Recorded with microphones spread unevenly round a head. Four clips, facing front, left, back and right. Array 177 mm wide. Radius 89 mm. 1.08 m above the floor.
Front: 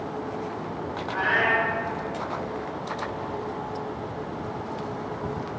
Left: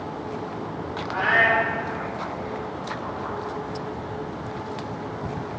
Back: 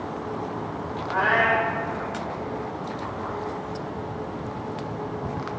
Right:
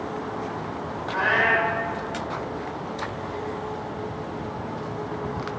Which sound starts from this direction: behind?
A cat meowing, at 1.1 s.